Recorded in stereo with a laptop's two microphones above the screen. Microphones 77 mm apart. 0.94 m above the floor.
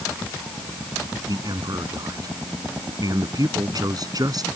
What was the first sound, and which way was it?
A man speaking, 55° right (ahead or behind).